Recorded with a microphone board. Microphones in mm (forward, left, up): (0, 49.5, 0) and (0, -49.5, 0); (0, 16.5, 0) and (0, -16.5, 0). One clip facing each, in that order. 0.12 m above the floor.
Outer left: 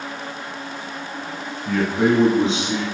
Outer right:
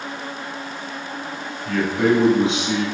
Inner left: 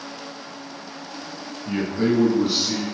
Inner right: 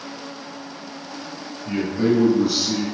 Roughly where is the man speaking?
Centre.